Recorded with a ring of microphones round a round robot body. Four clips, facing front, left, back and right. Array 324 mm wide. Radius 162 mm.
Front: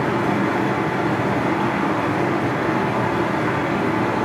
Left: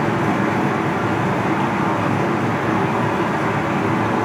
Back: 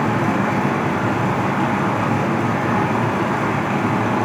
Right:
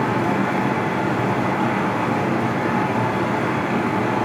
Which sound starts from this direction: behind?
Running water, at 0.0 s.